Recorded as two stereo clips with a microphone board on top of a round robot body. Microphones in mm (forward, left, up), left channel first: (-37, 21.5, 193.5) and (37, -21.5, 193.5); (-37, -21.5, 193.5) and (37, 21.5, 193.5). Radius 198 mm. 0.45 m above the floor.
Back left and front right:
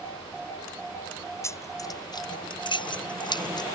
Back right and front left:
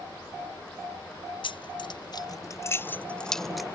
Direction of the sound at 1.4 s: 155° right.